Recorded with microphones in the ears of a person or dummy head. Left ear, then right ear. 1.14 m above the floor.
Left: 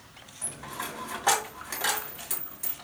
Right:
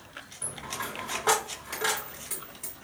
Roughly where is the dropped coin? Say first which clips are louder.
Right 1 dB; left.